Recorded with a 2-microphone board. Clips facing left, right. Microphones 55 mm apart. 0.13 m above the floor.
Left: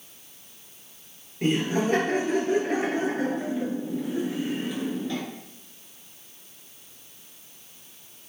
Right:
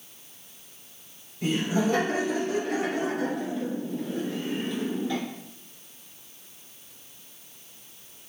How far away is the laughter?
About 3 m.